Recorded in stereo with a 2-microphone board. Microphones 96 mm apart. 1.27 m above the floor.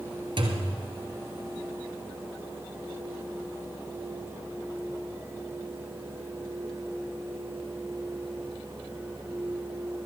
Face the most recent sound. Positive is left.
turn(degrees=-60)  # may be behind; listen again after turning